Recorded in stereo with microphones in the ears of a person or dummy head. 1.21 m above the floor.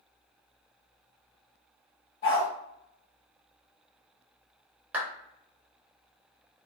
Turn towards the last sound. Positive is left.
turn(degrees=-5)  # may be behind; listen again after turning